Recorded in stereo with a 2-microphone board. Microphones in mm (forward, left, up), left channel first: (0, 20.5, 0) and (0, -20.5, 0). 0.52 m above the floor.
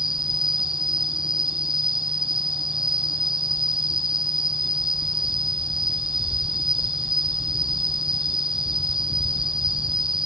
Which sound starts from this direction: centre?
An insect, at 0.0 s.